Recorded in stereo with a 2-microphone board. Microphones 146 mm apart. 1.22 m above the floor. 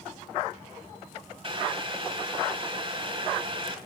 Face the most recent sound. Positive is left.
turn(degrees=-40)  # may be behind; listen again after turning